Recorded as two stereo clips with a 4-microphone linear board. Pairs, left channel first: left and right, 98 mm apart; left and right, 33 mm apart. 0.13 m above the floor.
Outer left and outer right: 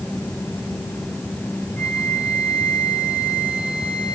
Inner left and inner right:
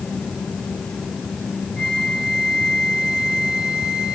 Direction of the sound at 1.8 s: 10° right (ahead or behind).